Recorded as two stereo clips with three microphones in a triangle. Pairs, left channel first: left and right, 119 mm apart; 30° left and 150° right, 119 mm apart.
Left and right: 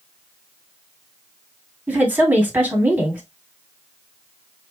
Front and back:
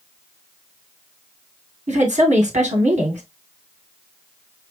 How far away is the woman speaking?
About 1.9 m.